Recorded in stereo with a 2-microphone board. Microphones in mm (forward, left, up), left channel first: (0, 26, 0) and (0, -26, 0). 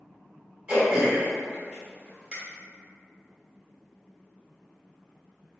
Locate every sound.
0.7 s throat clearing: 20° right (ahead or behind), 1.8 m